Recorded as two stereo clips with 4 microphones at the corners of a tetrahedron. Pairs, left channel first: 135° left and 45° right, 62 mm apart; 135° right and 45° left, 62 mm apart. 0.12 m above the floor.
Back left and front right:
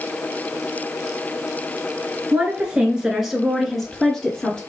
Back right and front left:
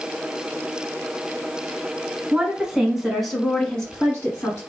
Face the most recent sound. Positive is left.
turn(degrees=-160)